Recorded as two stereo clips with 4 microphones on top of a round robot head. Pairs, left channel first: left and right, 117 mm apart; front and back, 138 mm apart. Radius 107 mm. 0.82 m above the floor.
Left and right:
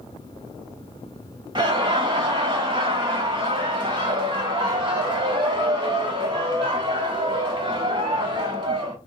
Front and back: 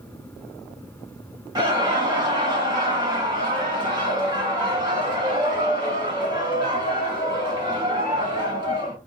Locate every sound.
1.6 s laughter: 125° right, 1.6 m